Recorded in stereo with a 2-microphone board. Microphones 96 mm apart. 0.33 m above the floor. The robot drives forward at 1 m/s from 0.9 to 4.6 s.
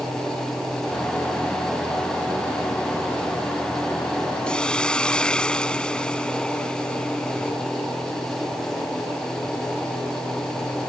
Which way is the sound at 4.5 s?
10° left (ahead or behind).